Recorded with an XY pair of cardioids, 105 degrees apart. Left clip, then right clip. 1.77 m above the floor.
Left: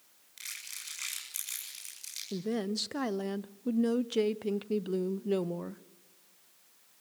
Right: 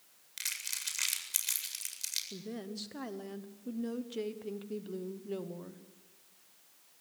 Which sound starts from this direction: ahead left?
A woman speaking, at 2.3 s.